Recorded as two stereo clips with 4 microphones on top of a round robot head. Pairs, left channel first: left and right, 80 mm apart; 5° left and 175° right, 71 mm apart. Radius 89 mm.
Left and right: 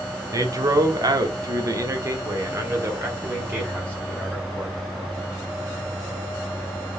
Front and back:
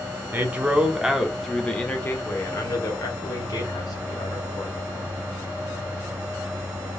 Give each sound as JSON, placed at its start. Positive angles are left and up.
{"t": 0.3, "sound": "a man speaking", "azimuth_deg": -120, "distance_m": 1.6}